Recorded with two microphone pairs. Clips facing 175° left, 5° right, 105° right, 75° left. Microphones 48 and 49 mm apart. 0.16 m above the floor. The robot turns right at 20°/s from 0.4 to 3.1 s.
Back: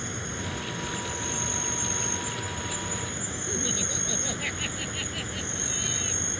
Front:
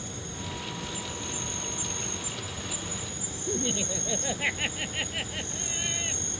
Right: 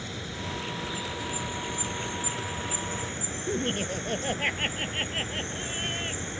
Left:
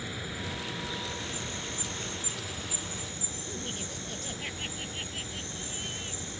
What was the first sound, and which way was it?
An insect, 155° left.